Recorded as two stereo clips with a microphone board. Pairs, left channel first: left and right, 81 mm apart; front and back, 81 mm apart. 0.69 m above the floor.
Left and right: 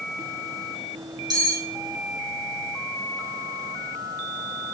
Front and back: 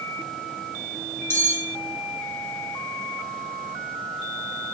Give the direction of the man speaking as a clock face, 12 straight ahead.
No man speaking in this recording.